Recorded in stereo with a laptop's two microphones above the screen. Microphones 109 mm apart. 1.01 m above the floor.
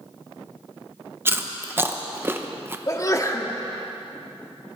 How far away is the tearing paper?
I don't hear tearing paper.